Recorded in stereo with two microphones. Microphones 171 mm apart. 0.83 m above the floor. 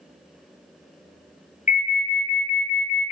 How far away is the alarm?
About 0.7 m.